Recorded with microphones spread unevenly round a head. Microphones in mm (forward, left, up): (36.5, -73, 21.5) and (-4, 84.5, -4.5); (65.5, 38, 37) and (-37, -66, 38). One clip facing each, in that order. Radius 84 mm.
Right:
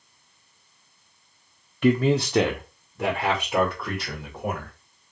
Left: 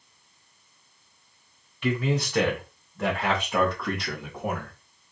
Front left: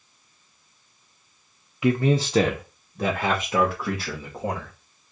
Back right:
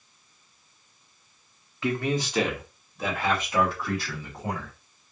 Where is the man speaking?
30° right, 0.5 m; by 4.7 s 10° left, 2.5 m.